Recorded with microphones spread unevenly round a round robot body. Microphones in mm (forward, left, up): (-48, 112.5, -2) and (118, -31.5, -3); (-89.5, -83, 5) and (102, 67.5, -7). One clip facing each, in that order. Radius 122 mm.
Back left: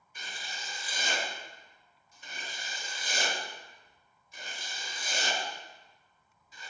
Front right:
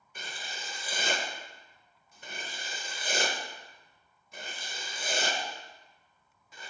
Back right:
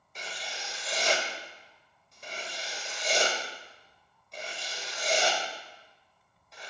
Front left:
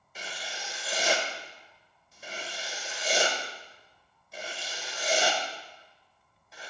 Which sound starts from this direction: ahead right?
Writing, at 0.1 s.